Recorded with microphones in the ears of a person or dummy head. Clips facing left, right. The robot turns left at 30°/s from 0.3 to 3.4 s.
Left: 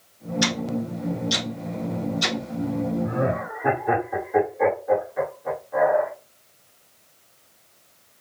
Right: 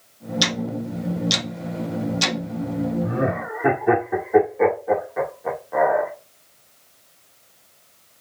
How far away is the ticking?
About 1.6 m.